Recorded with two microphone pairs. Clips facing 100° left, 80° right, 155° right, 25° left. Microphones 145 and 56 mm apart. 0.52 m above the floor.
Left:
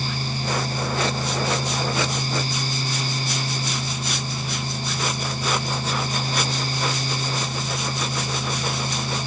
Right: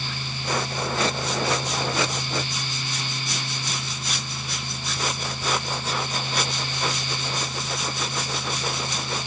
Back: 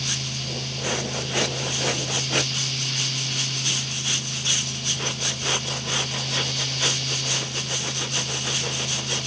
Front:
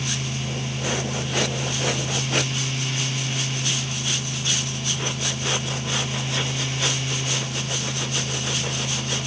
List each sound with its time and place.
Only background noise.